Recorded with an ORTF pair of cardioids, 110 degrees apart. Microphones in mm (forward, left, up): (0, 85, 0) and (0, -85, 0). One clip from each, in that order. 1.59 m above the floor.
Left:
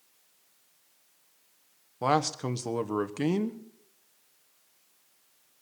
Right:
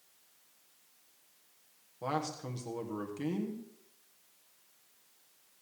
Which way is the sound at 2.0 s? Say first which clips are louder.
Left 9 dB; 55° left.